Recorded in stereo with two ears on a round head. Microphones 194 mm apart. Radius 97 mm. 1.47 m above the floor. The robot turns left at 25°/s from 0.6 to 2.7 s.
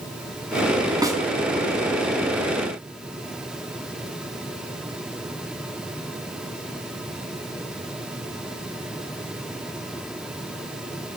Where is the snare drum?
20° right (ahead or behind), 6 m; by 1.2 s 15° right (ahead or behind), 6 m.